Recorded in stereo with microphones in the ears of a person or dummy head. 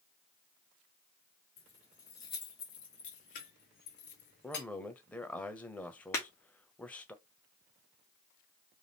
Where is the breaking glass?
15° left (ahead or behind), 0.9 m.